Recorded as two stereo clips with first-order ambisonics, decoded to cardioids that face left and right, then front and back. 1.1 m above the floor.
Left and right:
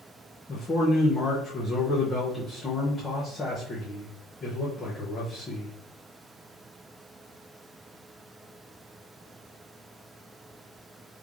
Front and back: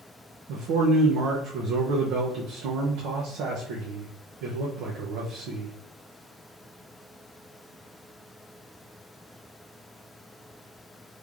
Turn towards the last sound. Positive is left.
turn(degrees=165)